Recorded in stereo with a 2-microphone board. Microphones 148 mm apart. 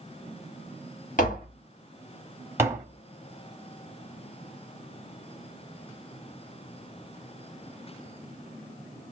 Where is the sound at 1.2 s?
60° left (ahead or behind), 1.5 m.